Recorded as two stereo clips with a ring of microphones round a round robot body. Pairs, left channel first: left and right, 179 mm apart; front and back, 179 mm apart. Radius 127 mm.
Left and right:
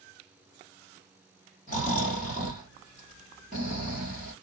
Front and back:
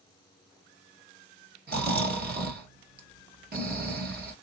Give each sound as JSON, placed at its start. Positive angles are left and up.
{"t": 1.7, "sound": "snoring", "azimuth_deg": 150, "distance_m": 1.4}